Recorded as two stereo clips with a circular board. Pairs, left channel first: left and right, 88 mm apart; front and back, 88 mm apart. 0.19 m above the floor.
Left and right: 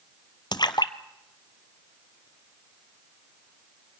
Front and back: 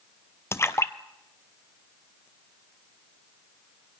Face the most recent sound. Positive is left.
turn(degrees=60)